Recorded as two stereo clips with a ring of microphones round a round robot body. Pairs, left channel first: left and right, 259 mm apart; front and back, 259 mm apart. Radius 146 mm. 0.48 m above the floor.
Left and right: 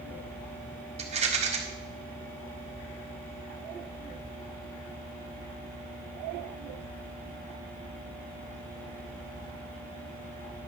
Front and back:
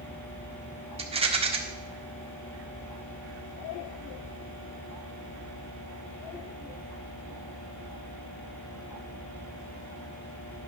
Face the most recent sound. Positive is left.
turn(degrees=-135)